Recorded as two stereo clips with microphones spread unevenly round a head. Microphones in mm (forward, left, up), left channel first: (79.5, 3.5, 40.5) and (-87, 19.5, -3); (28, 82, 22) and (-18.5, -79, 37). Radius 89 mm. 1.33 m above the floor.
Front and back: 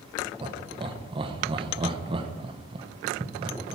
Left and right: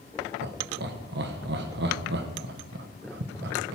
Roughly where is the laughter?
Behind right.